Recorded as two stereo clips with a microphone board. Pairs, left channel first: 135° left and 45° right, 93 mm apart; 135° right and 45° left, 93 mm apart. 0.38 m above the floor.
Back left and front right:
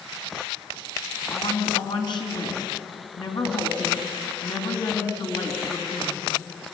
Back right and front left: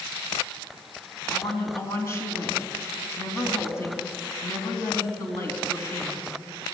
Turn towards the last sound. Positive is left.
turn(degrees=170)